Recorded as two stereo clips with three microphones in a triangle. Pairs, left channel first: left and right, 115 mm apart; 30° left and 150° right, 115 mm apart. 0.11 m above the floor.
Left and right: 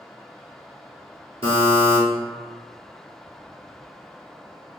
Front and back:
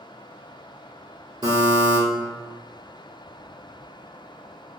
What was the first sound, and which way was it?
A buzzer, 110° right.